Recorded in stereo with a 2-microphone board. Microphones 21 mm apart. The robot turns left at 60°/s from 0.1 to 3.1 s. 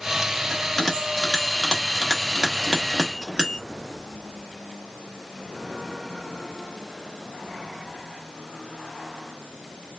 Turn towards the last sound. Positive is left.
turn(degrees=-35)  # may be behind; listen again after turning